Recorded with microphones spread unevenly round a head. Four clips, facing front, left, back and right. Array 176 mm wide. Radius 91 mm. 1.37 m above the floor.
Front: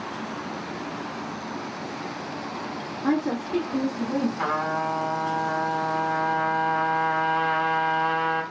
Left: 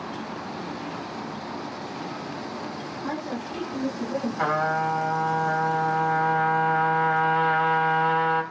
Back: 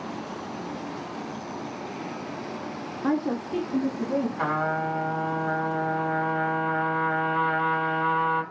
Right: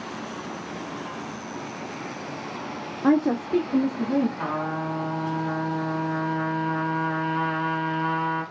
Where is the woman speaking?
90° right, 0.5 m.